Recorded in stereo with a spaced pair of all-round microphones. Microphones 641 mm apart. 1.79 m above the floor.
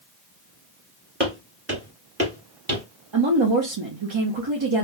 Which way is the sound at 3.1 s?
45° right (ahead or behind).